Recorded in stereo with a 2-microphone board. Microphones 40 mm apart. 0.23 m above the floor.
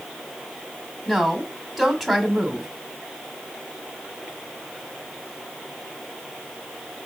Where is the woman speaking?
Centre (ahead or behind), 1.3 m.